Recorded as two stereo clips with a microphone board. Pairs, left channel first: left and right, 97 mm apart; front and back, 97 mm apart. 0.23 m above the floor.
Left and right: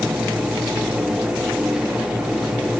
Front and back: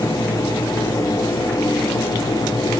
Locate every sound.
Only background noise.